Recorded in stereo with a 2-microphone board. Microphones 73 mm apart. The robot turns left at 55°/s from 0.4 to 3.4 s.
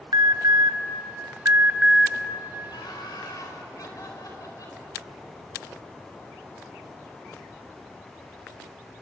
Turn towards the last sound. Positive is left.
turn(degrees=55)